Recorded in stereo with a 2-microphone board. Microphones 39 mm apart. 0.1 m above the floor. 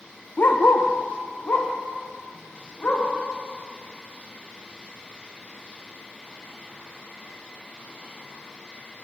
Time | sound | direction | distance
0.4 | a dog barking | 55° left (ahead or behind) | 1.0 m